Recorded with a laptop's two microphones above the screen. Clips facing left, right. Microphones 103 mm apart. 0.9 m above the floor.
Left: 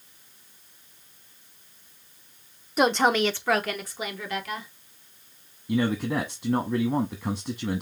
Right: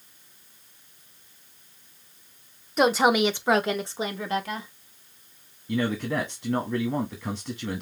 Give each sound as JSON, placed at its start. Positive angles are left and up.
{"t": 2.8, "sound": "a woman speaking", "side_deg": 0, "distance_m": 0.6}
{"t": 5.7, "sound": "a man speaking", "side_deg": 15, "distance_m": 1.0}